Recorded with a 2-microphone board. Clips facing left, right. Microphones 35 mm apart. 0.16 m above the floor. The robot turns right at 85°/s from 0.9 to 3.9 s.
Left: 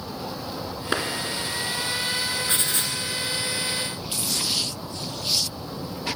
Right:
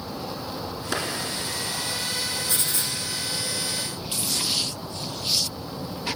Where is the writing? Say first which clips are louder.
Left 2 dB; 45° left, 1.3 m; by 2.9 s 85° left, 1.3 m.